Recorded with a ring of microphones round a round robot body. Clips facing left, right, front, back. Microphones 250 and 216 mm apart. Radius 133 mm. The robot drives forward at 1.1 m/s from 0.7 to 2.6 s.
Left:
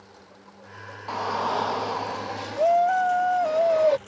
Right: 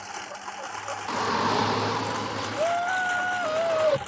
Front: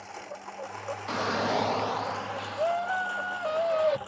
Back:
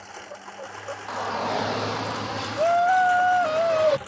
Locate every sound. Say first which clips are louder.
0.0 s a lawn mower: right 8 dB, back 1 dB; 95° right; by 4.1 s 110° right
1.1 s a shout: right 2 dB, even; 35° right; by 4.0 s 160° right